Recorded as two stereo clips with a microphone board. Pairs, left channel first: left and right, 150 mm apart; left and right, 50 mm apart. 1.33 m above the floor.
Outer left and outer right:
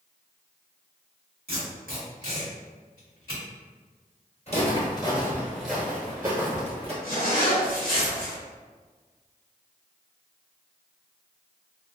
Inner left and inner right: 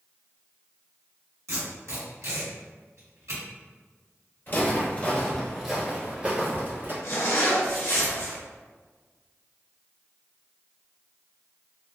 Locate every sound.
1.5 s tape being pulled: 85° right, 1.9 m
4.5 s footsteps: 45° left (ahead or behind), 1.7 m; by 6.9 s 45° right (ahead or behind), 2 m
7.0 s a zipper: 65° left (ahead or behind), 1.4 m